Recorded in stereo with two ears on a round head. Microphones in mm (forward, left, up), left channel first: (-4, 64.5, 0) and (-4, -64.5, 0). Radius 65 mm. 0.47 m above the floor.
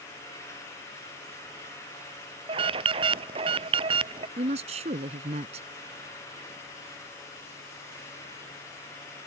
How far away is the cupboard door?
No cupboard door in this recording.